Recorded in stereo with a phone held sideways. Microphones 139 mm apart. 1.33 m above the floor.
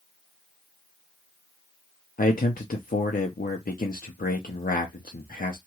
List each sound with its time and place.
2.2 s a man speaking: 90° left, 0.6 m